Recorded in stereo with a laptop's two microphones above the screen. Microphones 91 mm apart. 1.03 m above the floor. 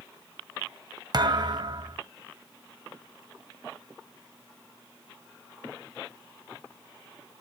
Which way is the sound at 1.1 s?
50° right (ahead or behind).